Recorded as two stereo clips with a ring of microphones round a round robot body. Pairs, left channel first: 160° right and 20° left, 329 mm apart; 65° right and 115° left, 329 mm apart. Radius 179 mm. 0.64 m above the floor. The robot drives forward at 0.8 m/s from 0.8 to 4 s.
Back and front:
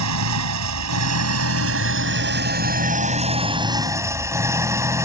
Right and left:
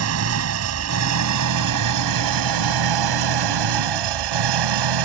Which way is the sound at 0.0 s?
65° left.